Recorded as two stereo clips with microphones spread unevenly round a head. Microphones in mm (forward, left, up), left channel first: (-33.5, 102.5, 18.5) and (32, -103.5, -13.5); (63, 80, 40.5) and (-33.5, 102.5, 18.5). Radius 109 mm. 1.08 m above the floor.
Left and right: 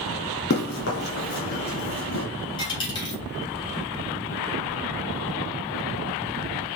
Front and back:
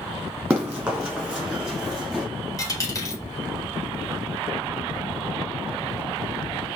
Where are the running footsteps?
85° left, 1.8 m; by 2.2 s 75° left, 3 m.